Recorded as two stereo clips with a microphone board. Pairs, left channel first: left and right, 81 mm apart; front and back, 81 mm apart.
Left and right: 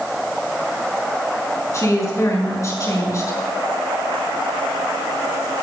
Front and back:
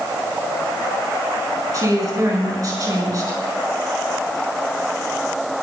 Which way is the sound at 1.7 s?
140° left.